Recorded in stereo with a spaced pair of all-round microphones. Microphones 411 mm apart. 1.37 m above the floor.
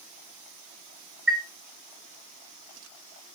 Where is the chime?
30° right (ahead or behind), 2 m.